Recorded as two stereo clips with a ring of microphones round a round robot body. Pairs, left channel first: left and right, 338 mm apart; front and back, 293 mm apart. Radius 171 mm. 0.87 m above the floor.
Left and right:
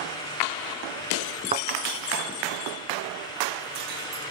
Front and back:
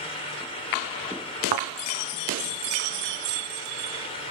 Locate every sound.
1.5 s a thud: 160° right, 1.7 m